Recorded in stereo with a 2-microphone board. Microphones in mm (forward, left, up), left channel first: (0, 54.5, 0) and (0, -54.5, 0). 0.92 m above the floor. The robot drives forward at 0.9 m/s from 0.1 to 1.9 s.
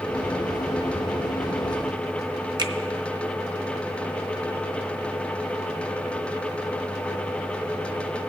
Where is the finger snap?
40° right (ahead or behind), 0.7 m.